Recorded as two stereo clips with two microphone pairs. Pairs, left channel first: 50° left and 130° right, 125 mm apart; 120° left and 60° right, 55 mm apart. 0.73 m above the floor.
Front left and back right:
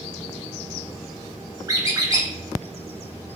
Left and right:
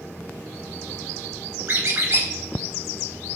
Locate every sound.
1.7 s a squeak: 75° right, 0.7 m